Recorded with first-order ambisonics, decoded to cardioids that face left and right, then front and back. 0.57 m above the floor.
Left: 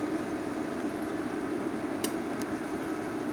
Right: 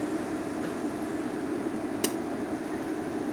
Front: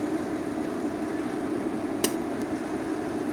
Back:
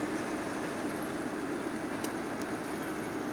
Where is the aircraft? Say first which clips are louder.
Right 1 dB, front 5 dB; 5° right; by 3.3 s 10° right.